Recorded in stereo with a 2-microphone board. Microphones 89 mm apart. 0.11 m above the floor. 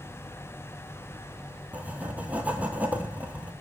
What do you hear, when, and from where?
1.7 s writing: 15° right (ahead or behind), 0.6 m